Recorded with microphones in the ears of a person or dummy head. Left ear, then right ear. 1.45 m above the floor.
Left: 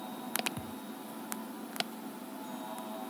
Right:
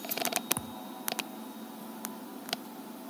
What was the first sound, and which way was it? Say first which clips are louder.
A thud: right 2 dB; 40° right (ahead or behind).